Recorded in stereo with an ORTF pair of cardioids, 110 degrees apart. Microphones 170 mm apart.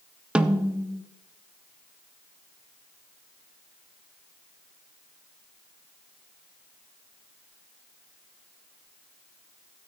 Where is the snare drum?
5° right, 0.6 m.